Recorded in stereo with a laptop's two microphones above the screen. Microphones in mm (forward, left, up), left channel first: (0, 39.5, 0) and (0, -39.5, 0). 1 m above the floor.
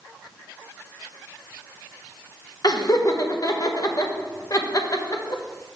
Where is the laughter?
50° left (ahead or behind), 0.8 m.